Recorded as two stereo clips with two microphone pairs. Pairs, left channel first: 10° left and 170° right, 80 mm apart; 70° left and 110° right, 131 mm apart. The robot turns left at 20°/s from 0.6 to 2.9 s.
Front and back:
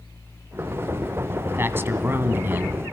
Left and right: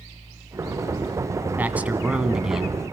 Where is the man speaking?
175° right, 1.5 m; by 2.8 s 165° left, 1.5 m.